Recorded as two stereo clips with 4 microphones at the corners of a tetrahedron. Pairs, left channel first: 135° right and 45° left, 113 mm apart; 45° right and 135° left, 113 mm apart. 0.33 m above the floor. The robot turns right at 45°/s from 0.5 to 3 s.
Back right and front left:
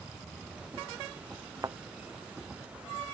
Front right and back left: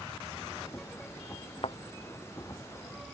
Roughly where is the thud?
Ahead.